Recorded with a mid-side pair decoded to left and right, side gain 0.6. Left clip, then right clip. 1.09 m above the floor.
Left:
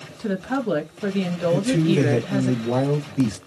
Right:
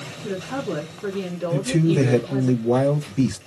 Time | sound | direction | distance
0.2 | a woman speaking | 60° left | 1.5 m
1.5 | a man speaking | 15° right | 0.9 m